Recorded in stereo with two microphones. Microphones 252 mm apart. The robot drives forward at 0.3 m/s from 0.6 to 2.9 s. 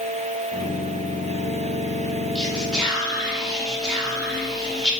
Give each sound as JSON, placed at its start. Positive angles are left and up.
{"t": 2.4, "sound": "whispering", "side_deg": 5, "distance_m": 0.8}